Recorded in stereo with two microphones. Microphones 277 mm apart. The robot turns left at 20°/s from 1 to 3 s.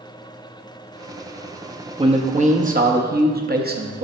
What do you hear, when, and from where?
2.0 s a man speaking: 20° right (ahead or behind), 0.8 m; by 4.1 s 35° right (ahead or behind), 0.8 m